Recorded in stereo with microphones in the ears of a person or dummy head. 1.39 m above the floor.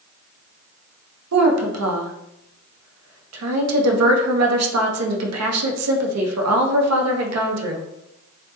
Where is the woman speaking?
80° right, 0.6 m.